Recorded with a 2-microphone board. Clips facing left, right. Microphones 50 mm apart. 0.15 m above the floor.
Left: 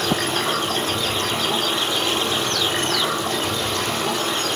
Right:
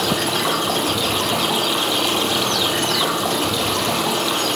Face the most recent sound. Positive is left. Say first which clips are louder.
# right 2 dB
turn(degrees=-75)  # may be behind; listen again after turning